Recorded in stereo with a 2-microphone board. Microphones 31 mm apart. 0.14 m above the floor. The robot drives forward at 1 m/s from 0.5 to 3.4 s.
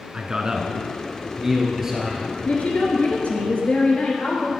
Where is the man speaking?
25° right (ahead or behind), 1.2 m; by 2.4 s 10° right (ahead or behind), 2.5 m.